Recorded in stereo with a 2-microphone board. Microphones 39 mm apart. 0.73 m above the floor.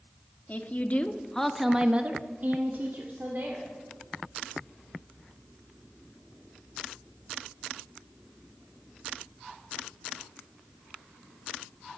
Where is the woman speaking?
45° left (ahead or behind), 1.5 m; by 3.7 s 60° right (ahead or behind), 2.5 m.